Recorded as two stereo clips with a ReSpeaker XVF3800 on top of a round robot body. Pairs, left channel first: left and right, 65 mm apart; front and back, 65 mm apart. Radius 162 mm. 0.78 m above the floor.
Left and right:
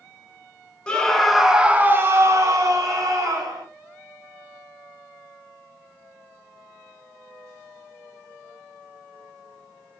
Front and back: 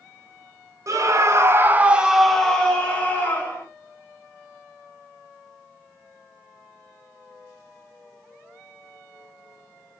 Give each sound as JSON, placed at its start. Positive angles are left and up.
{"t": 0.9, "sound": "a scream", "azimuth_deg": 165, "distance_m": 0.8}